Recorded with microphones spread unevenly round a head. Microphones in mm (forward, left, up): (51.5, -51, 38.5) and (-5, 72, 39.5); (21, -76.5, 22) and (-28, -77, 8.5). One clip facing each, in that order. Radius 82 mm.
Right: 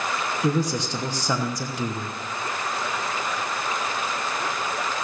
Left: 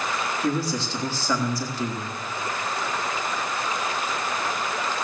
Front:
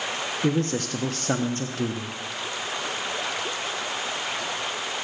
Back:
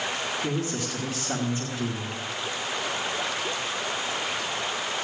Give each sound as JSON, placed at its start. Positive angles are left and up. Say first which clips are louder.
{"t": 0.4, "sound": "a man speaking", "louder": "right 3 dB, front 4 dB", "azimuth_deg": 10, "distance_m": 1.1}